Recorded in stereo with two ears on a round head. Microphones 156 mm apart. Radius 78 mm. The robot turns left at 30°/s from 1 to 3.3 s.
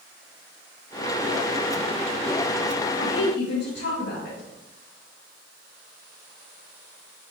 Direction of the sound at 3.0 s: 75° left (ahead or behind).